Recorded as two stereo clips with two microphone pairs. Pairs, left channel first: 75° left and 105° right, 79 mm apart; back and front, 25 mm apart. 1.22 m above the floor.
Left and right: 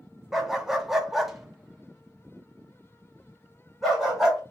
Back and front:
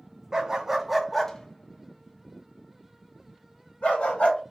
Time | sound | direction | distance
0.3 | a dog barking | 30° right | 0.7 m